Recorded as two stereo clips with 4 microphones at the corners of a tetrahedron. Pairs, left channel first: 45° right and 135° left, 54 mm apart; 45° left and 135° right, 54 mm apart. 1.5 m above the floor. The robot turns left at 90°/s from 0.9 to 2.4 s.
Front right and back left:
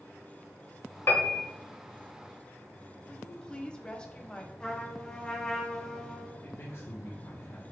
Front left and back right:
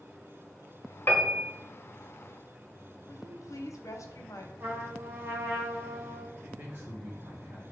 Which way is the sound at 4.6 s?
110° right.